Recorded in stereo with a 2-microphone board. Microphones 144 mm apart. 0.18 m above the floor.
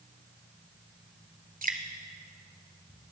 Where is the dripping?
75° right (ahead or behind), 1.1 m.